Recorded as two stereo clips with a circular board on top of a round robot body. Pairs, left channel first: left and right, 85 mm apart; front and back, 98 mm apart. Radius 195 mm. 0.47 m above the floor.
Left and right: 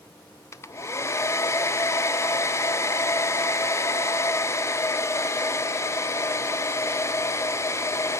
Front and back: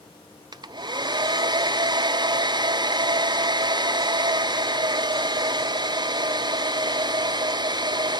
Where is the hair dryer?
140° left, 0.6 m.